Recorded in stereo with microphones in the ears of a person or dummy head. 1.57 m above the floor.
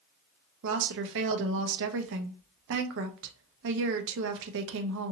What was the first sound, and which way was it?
A woman speaking, 65° right (ahead or behind).